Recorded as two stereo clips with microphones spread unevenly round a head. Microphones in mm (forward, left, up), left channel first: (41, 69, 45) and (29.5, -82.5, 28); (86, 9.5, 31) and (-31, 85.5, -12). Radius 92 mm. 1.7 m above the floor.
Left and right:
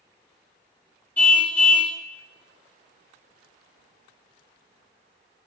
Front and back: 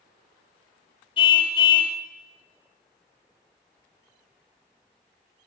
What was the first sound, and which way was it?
A car horn, 10° left.